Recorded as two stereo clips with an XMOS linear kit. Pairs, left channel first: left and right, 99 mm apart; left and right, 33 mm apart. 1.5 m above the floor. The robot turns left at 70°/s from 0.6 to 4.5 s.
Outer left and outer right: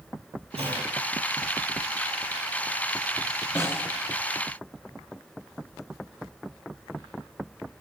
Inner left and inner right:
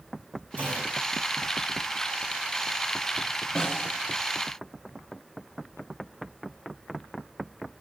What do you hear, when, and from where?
0.6 s a clunk: 90° right, 9.5 m; by 0.9 s 70° right (ahead or behind), 9.5 m
3.5 s a snare drum: 35° left (ahead or behind), 6 m; by 3.9 s 10° left (ahead or behind), 6 m